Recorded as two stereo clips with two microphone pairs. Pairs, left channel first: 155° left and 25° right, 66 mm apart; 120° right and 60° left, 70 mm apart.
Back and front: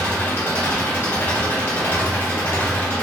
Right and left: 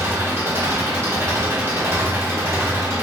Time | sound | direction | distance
0.0 | an engine running | 110° left | 1.4 m